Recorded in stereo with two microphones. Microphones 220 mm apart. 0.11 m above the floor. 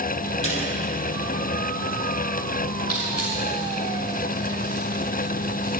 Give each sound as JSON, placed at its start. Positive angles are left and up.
{"t": 0.4, "sound": "a snare drum", "side_deg": 65, "distance_m": 4.5}
{"t": 2.9, "sound": "crushing", "side_deg": 85, "distance_m": 5.0}